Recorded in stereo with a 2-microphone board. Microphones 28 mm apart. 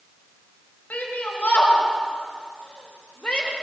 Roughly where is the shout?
Left.